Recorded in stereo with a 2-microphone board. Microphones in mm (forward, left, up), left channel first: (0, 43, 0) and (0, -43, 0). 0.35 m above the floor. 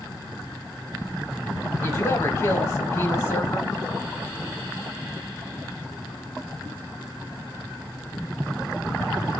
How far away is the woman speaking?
About 1.2 m.